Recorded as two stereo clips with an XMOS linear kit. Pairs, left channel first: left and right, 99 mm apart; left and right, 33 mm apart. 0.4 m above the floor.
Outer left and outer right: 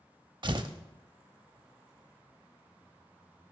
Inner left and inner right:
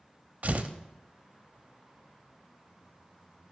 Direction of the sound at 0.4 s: 50° right (ahead or behind).